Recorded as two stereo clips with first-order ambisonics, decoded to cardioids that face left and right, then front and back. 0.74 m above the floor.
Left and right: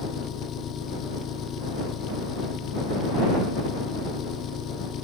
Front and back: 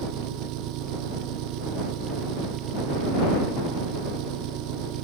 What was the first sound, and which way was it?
An engine running, 150° left.